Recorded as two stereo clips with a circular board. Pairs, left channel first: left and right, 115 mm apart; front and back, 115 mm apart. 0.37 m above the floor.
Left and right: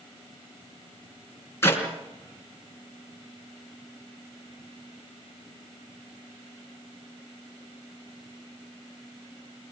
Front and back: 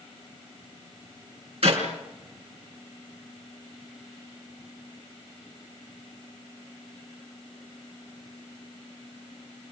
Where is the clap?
155° left, 4.5 m.